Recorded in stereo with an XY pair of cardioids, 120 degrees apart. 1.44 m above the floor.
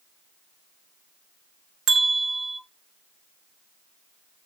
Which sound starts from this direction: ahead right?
A bell, at 1.9 s.